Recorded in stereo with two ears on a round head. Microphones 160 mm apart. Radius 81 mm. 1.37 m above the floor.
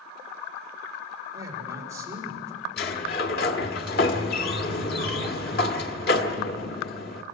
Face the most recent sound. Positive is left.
turn(degrees=60)  # may be behind; listen again after turning